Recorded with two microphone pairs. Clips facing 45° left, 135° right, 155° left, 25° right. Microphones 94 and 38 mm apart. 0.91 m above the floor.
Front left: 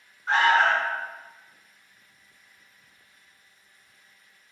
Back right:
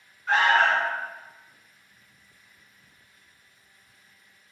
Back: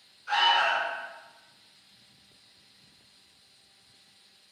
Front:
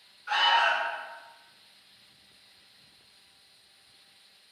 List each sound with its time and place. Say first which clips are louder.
0.3 s an alarm: even, even; 35° left, 1.4 m